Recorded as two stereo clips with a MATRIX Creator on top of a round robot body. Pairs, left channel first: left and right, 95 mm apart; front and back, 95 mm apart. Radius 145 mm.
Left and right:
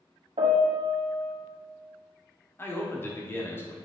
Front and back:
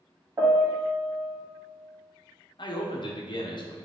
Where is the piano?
115° right, 1.2 m.